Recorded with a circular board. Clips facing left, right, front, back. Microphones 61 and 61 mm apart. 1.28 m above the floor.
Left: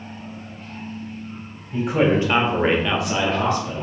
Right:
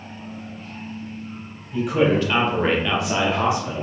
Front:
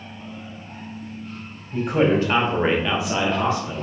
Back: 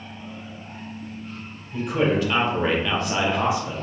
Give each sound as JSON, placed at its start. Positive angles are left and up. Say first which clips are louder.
{"t": 1.7, "sound": "a man speaking", "louder": "even, front 3 dB", "azimuth_deg": 40, "distance_m": 0.9}